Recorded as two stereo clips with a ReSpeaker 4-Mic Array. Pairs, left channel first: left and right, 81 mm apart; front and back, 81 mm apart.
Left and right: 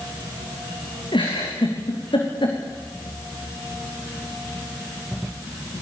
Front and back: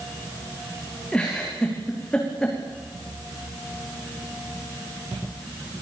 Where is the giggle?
80° left, 7.5 m.